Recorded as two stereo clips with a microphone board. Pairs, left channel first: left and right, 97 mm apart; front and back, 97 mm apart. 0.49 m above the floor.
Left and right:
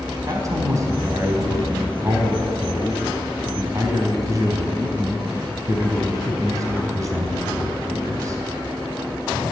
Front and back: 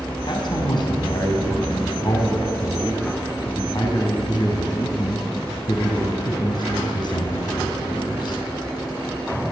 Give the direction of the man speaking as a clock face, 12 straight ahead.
1 o'clock.